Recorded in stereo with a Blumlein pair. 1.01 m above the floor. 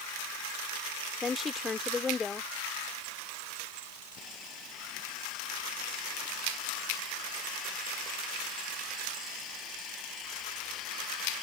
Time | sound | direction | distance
1.2 | a woman speaking | 15° left | ?
4.2 | sawing | 30° left | ?